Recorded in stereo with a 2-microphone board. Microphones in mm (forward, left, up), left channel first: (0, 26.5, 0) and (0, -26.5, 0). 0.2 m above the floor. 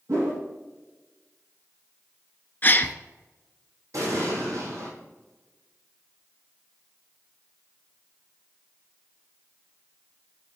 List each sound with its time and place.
0.1 s a whoosh: 80° right, 3.5 m
2.6 s a gasp: 35° left (ahead or behind), 0.5 m
3.9 s an explosion: 85° right, 3.5 m